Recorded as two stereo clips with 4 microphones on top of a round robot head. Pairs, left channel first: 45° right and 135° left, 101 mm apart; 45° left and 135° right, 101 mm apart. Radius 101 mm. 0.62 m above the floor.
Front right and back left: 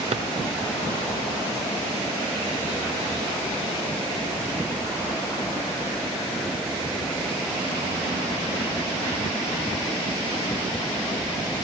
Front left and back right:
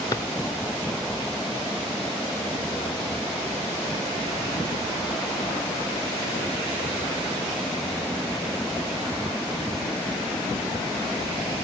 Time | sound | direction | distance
0.1 | a drawer | 105° left | 0.9 m